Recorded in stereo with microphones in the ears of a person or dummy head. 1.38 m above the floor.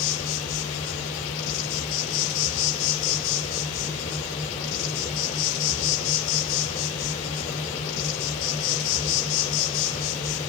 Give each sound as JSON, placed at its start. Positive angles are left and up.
{"t": 0.0, "sound": "an insect", "side_deg": 70, "distance_m": 2.5}